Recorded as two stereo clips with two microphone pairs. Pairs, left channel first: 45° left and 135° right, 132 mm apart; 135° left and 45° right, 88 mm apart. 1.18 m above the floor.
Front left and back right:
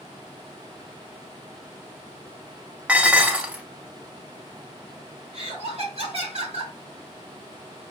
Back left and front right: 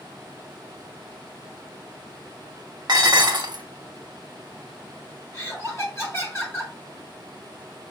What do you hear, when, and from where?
2.9 s dishes clattering: 55° right, 0.7 m
5.3 s laughter: 170° right, 1.6 m